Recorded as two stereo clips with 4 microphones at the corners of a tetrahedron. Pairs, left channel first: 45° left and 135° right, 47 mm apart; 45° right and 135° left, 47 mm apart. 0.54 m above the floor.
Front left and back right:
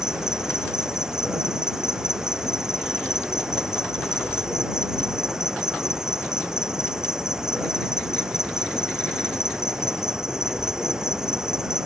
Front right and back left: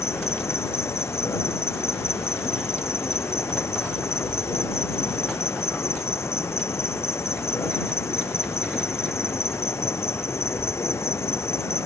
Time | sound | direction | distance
0.0 | an insect | 60° right | ?